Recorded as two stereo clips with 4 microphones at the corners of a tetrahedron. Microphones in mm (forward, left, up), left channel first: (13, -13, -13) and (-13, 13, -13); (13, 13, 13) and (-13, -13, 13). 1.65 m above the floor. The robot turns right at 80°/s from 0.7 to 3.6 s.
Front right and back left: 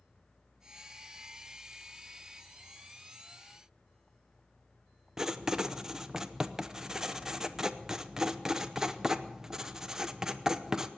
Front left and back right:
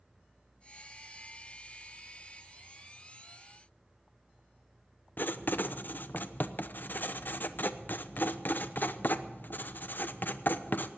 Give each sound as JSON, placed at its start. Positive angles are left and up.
{"t": 5.2, "sound": "writing", "azimuth_deg": 60, "distance_m": 0.7}